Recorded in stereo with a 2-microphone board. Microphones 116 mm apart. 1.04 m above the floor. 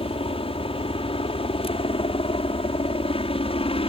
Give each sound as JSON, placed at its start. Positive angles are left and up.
{"t": 0.0, "sound": "a helicopter", "side_deg": 55}